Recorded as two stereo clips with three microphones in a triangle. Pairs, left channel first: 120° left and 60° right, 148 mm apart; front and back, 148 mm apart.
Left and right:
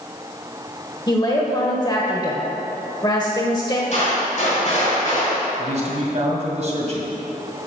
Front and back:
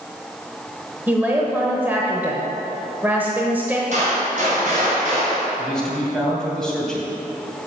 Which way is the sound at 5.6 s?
85° right.